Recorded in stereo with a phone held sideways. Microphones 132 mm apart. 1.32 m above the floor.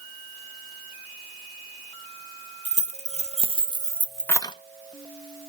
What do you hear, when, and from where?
2.6 s keys jangling: 60° right (ahead or behind), 1.4 m; by 4.5 s 35° left (ahead or behind), 0.5 m